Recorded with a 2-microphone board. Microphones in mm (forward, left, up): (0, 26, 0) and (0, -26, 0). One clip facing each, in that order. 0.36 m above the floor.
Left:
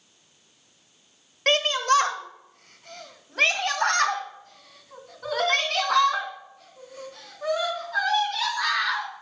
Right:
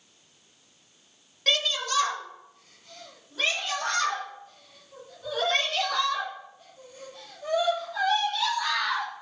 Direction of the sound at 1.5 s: 45° left (ahead or behind).